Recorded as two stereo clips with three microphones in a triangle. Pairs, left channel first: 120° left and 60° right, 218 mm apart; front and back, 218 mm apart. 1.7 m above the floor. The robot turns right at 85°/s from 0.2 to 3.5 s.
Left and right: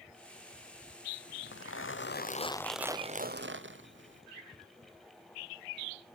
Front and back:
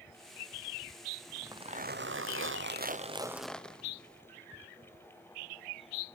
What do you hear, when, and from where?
1.3 s a zipper: 85° left, 0.7 m; by 4.2 s 85° right, 0.7 m